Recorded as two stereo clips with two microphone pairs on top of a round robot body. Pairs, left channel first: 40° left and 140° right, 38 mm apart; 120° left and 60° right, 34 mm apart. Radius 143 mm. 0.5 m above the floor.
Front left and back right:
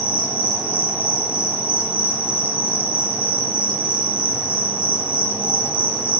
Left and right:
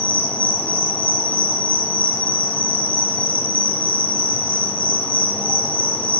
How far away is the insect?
About 7 m.